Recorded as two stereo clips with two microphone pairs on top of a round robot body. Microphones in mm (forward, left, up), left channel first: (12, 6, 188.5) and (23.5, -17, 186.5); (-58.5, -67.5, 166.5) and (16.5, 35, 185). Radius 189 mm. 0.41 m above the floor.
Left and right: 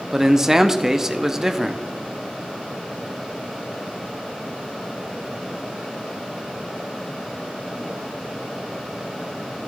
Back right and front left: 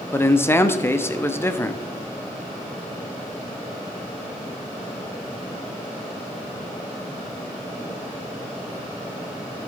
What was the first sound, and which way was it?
A man speaking, 110° right.